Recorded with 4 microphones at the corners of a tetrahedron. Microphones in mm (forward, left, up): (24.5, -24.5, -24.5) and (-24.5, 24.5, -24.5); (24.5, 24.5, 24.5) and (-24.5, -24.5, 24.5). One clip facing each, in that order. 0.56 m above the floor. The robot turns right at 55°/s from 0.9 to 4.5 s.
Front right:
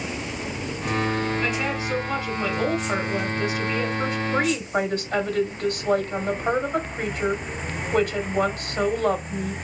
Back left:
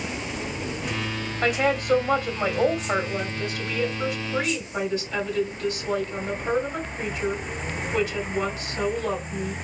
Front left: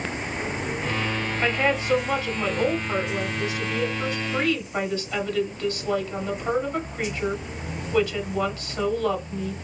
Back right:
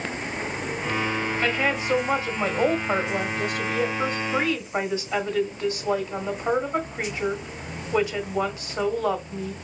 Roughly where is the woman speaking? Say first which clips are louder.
Back left 3 dB, front left 3 dB; behind left.